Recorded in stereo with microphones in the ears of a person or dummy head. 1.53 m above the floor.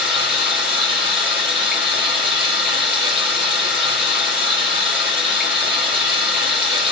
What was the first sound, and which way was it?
Running water, 5° right (ahead or behind).